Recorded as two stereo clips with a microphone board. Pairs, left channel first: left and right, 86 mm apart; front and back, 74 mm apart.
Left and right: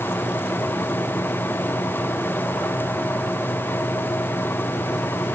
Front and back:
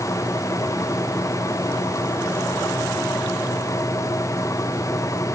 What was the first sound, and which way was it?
Only background noise.